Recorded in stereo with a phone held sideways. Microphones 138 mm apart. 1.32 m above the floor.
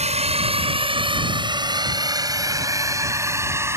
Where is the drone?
50° right (ahead or behind); by 3.8 s 15° right (ahead or behind).